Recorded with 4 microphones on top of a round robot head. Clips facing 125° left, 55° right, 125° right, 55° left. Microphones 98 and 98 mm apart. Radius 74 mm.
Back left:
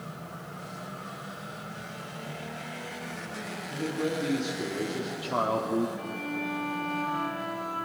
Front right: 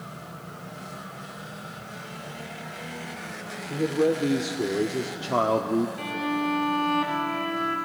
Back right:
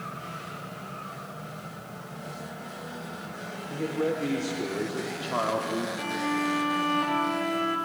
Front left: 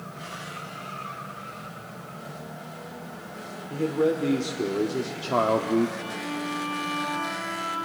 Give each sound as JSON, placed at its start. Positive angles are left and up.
{"t": 3.7, "sound": "a man speaking", "azimuth_deg": -20, "distance_m": 2.0}
{"t": 6.0, "sound": "a violin", "azimuth_deg": -85, "distance_m": 2.0}